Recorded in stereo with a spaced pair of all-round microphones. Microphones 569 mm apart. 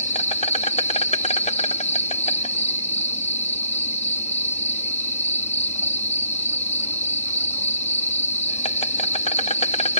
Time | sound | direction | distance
0.0 | an insect | 10° left (ahead or behind) | ?